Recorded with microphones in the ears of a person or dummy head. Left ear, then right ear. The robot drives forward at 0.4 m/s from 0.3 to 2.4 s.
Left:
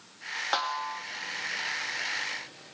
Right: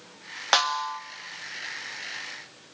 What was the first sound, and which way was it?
A snare drum, 50° right (ahead or behind).